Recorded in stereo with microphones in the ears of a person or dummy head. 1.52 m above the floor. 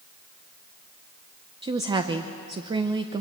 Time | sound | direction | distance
1.6 | a woman speaking | 25° right (ahead or behind) | 0.8 m